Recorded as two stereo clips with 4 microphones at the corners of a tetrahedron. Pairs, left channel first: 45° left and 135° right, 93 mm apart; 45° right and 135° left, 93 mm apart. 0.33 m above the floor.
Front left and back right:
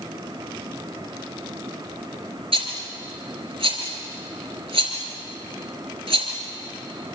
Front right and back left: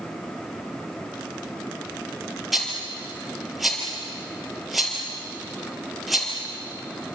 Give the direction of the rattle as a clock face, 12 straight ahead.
4 o'clock.